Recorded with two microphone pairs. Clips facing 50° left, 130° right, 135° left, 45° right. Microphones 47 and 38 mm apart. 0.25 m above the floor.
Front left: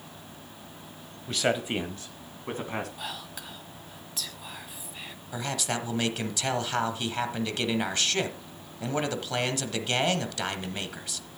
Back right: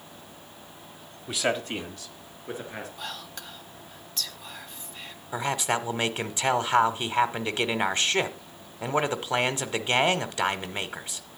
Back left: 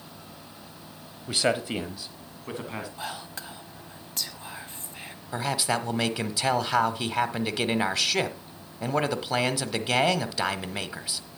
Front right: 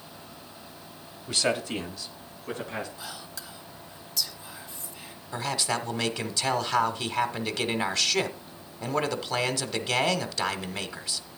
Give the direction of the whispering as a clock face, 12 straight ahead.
8 o'clock.